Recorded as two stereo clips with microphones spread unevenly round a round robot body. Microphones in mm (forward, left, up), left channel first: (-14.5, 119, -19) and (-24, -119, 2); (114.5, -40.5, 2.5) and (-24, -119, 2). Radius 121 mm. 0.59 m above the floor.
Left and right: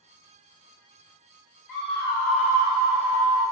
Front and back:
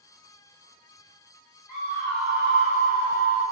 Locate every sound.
1.7 s a scream: 50° left, 0.8 m; by 3.4 s 150° right, 1.3 m